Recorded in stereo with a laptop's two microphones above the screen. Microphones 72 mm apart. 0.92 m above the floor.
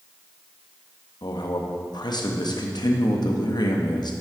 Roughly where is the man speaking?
Left.